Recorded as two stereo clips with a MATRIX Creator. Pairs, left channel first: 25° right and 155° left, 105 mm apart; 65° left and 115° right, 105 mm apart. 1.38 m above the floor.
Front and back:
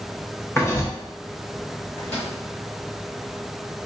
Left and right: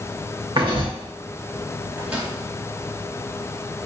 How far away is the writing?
About 0.8 m.